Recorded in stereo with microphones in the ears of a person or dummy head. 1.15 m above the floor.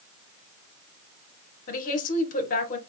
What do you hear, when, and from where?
1.7 s a woman speaking: 45° left (ahead or behind), 1.0 m